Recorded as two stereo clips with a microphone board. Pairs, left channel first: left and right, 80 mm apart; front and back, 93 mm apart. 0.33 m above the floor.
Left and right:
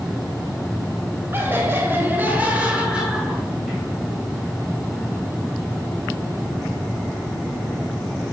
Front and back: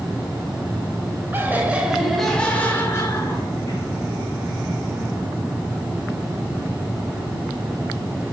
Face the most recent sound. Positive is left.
turn(degrees=0)